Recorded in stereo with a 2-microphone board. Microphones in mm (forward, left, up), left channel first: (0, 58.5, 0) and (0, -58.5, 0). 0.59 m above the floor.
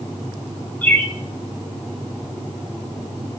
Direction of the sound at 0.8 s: 15° left (ahead or behind).